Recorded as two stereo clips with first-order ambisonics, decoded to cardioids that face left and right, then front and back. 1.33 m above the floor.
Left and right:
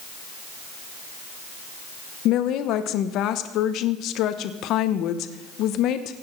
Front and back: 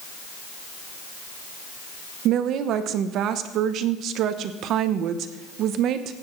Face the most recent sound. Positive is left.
turn(degrees=135)